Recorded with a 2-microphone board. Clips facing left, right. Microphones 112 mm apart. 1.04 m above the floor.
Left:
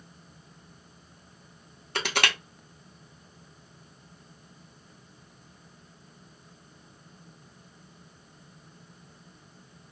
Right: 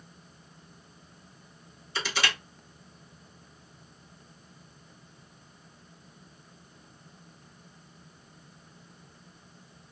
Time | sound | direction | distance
1.9 | crushing | 65° left (ahead or behind) | 0.7 m